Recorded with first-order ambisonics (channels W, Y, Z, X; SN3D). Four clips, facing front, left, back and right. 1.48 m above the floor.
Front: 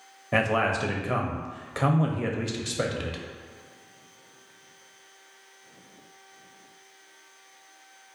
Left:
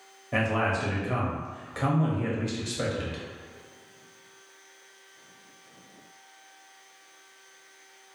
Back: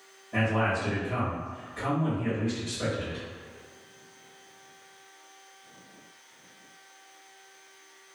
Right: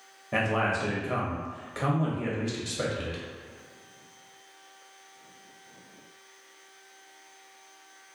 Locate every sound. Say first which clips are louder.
0.3 s a man speaking: even, front 3 dB; 5° right, 0.5 m